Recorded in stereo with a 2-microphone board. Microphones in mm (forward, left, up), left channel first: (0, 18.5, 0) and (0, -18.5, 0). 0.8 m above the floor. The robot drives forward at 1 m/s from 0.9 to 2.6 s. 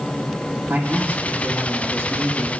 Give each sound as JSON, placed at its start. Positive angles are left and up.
{"t": 0.7, "sound": "a man speaking", "side_deg": -55, "distance_m": 2.0}